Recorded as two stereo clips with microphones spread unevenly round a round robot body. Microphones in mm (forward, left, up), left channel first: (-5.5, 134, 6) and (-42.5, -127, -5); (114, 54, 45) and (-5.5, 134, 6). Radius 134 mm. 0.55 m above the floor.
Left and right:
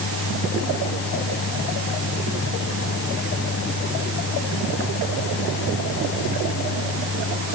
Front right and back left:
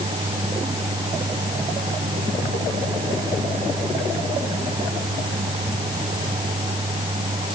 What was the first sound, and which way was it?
Only background noise.